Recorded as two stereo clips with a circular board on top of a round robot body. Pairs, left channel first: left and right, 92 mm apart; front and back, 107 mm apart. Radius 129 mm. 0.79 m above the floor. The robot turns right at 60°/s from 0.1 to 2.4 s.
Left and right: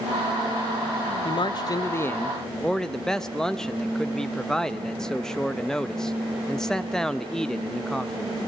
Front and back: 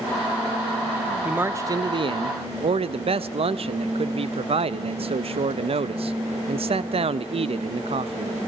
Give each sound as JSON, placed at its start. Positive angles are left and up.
{"t": 1.2, "sound": "a man speaking", "azimuth_deg": 105, "distance_m": 0.8}